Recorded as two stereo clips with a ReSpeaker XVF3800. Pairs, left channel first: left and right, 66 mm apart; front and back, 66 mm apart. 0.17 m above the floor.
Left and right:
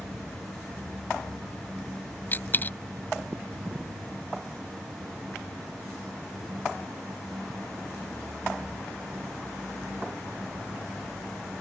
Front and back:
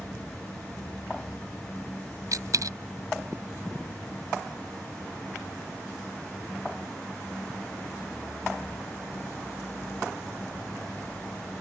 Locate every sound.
2.3 s a dropped coin: 150° left